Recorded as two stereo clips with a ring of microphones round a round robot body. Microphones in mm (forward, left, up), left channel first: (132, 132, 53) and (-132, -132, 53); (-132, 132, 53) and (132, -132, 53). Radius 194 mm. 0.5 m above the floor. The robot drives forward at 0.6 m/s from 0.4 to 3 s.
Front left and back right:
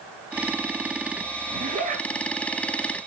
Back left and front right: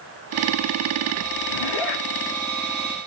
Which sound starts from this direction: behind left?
A zipper, at 1.5 s.